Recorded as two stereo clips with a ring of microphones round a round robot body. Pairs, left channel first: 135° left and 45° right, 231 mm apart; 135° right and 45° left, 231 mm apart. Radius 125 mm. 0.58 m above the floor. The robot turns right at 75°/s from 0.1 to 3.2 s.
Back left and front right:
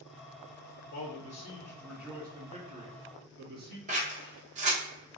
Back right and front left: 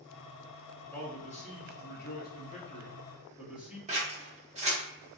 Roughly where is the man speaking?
Behind left.